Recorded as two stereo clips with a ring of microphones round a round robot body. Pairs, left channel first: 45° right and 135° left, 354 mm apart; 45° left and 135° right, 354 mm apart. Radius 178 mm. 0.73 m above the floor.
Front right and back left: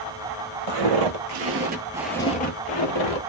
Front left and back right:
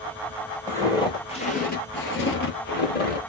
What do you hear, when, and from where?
0.7 s footsteps: 125° left, 1.4 m; by 3.2 s 15° right, 1.3 m